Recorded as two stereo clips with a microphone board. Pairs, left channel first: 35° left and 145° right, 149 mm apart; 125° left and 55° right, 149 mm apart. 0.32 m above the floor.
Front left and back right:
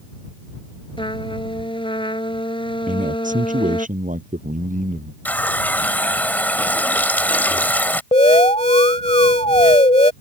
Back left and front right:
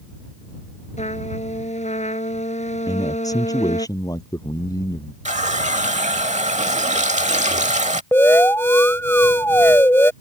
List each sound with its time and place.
1.0 s a trumpet: 90° left
2.9 s a man speaking: 170° right
5.2 s a running tap: 40° right
8.1 s an alarm: 55° left